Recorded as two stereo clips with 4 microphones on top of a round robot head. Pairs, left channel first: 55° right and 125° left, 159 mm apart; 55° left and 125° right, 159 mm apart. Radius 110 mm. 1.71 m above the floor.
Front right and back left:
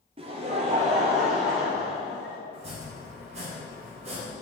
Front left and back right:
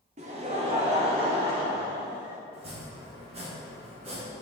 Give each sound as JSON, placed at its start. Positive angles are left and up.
{"t": 0.2, "sound": "laughter", "azimuth_deg": -175, "distance_m": 0.7}
{"t": 2.5, "sound": "chopping", "azimuth_deg": 180, "distance_m": 1.9}